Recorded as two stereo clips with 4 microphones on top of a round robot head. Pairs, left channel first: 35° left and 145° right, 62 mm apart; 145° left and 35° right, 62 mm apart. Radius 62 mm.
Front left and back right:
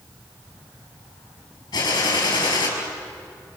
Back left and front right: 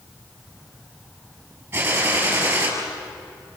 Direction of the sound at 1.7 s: 15° left.